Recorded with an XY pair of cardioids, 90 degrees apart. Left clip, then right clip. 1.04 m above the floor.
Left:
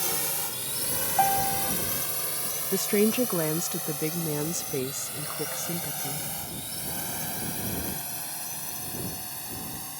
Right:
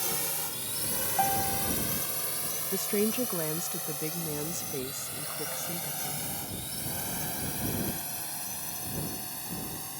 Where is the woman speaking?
50° left.